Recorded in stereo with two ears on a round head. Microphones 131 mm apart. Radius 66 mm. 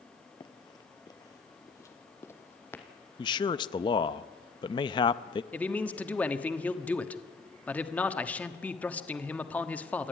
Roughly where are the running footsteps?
Left.